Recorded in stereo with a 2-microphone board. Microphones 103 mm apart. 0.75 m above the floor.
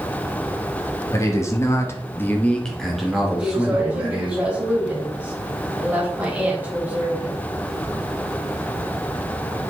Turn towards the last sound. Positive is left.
turn(degrees=-15)  # may be behind; listen again after turning